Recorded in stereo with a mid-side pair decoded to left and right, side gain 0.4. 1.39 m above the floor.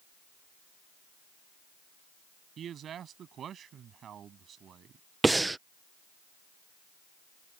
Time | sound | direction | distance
2.6 | a man speaking | 65° right | ?
5.2 | breathing | 20° right | ?